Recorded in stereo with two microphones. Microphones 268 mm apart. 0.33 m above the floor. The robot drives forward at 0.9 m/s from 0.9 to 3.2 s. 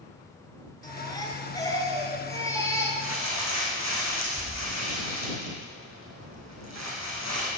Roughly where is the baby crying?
Centre.